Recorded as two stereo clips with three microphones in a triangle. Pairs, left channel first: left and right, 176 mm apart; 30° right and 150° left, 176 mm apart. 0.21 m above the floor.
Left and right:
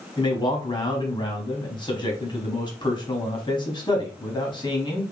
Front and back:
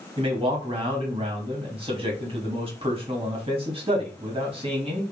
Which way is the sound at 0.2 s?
130° left.